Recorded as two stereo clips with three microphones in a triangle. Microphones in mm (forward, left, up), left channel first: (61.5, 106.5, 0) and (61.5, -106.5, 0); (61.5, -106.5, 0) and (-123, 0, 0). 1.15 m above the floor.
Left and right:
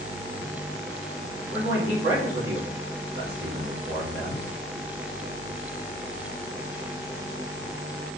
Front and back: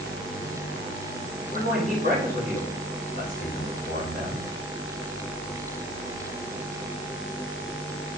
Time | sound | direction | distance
1.5 | a man speaking | 85° right | 2.5 m